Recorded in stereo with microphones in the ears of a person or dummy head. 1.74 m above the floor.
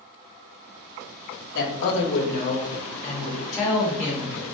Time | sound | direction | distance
1.6 | a woman speaking | 80° left | 1.0 m